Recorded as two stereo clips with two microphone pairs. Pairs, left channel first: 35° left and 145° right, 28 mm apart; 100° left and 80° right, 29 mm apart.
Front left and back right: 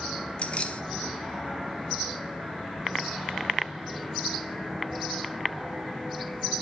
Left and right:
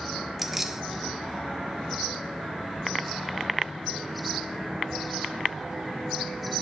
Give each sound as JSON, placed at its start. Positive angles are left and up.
{"t": 0.4, "sound": "keys jangling", "azimuth_deg": 0, "distance_m": 0.6}